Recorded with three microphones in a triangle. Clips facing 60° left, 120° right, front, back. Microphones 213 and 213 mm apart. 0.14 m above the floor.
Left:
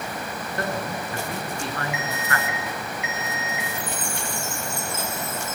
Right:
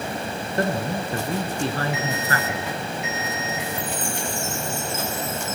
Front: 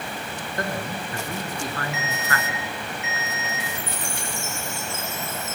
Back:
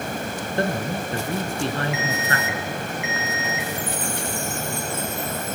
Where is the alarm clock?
165° right, 2.5 m.